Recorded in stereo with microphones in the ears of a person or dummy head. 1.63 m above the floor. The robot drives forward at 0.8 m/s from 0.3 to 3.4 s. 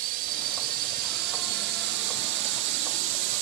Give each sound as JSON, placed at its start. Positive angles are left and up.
{"t": 0.0, "sound": "a drone", "side_deg": -50}